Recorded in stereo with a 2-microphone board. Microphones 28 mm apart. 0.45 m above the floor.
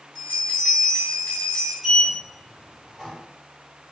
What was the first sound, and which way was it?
A bell, 45° left (ahead or behind).